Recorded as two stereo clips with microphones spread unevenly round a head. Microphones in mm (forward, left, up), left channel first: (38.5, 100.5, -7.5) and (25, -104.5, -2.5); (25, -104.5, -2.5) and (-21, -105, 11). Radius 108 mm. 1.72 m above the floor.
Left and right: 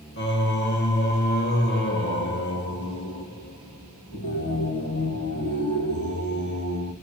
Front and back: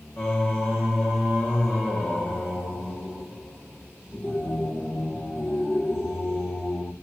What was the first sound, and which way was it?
Singing, 65° left.